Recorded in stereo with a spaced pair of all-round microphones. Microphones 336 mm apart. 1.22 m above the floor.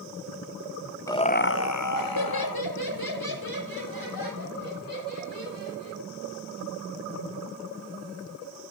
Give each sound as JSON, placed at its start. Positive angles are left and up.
{"t": 1.1, "sound": "laughter", "side_deg": 10, "distance_m": 0.6}